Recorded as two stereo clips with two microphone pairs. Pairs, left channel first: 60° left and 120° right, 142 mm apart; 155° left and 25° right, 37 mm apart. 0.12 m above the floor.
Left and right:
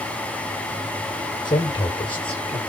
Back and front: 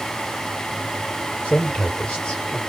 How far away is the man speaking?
About 3.5 m.